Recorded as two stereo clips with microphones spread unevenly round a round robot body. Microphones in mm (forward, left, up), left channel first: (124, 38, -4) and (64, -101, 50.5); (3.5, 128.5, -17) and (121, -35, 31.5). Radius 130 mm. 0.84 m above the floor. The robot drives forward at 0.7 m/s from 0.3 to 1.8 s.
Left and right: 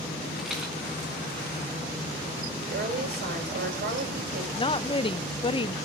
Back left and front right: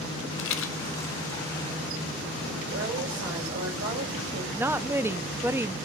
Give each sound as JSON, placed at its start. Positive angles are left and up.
{"t": 0.4, "sound": "a rattle", "azimuth_deg": 170, "distance_m": 0.9}
{"t": 2.6, "sound": "a woman speaking", "azimuth_deg": -105, "distance_m": 5.0}
{"t": 4.6, "sound": "a woman speaking", "azimuth_deg": 30, "distance_m": 0.9}